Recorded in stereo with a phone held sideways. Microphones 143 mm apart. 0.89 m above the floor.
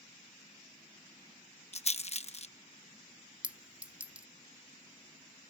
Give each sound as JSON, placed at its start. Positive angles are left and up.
{"t": 1.7, "sound": "a rattle", "side_deg": 50}
{"t": 3.4, "sound": "a clink", "side_deg": -10}